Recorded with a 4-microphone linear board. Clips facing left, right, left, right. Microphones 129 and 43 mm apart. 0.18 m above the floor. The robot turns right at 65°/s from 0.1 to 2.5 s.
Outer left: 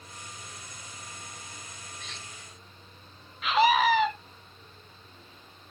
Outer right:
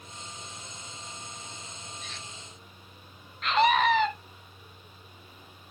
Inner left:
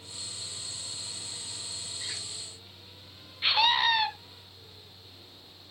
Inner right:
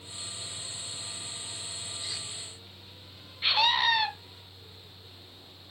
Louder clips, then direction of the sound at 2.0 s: Outer right 1 dB, even; 75° left (ahead or behind).